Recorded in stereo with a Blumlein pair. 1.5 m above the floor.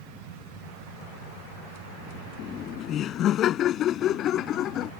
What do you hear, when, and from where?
2.4 s laughter: 30° left; by 4.9 s 35° left